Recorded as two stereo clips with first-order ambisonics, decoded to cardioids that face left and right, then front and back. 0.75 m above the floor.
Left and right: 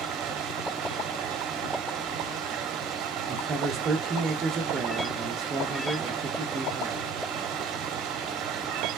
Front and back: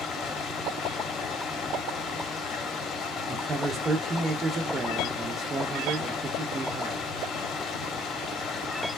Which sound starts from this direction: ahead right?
Running water, at 0.0 s.